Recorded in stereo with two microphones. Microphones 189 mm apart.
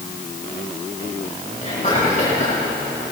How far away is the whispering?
About 4 m.